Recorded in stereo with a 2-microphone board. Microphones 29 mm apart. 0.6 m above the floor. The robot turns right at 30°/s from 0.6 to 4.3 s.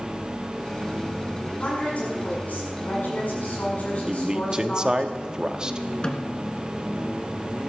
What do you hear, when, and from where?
1.6 s a woman speaking: 45° left, 6 m; by 5.1 s 125° left, 6 m
4.1 s a man speaking: 25° right (ahead or behind), 0.8 m
6.0 s a snare drum: 30° left (ahead or behind), 1.7 m